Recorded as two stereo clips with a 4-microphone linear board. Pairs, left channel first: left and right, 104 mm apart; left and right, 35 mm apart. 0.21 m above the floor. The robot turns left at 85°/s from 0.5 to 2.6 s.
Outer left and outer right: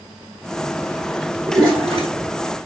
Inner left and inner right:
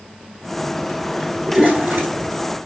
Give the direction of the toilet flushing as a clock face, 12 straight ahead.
1 o'clock.